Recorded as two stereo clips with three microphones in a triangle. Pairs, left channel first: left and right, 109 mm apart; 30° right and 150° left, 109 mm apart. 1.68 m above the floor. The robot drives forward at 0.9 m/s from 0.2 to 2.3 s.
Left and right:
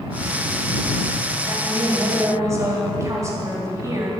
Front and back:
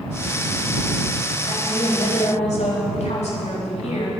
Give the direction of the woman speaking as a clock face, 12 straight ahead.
1 o'clock.